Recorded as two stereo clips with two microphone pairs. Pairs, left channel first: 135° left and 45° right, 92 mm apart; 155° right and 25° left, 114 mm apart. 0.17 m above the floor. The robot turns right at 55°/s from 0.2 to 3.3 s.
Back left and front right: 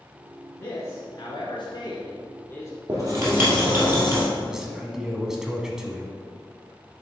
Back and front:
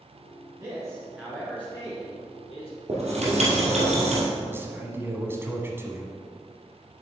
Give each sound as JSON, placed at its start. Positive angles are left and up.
{"t": 0.6, "sound": "a man speaking", "azimuth_deg": 75, "distance_m": 1.8}
{"t": 2.9, "sound": "writing", "azimuth_deg": 0, "distance_m": 2.5}
{"t": 4.5, "sound": "a man speaking", "azimuth_deg": 30, "distance_m": 1.1}